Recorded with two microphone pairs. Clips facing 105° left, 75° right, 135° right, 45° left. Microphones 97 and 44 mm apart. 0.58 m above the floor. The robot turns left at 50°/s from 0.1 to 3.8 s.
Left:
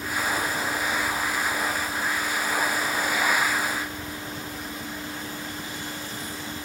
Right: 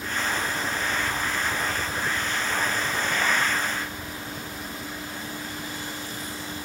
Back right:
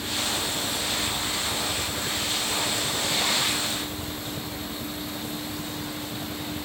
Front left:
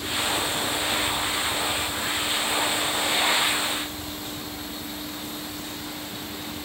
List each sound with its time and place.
0.0 s a helicopter: 30° left; by 6.7 s 165° right